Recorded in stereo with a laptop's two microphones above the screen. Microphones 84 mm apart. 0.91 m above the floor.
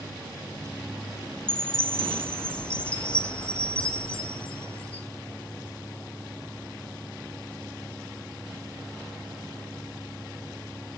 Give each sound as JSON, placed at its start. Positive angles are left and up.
{"t": 1.5, "sound": "a chime", "side_deg": 10, "distance_m": 0.5}